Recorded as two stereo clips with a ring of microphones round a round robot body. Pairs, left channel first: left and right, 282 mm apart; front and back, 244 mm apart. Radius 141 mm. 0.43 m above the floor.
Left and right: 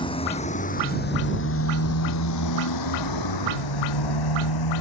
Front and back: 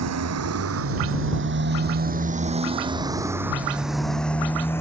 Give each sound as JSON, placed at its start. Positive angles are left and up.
{"t": 0.0, "sound": "a motorcycle", "azimuth_deg": 165}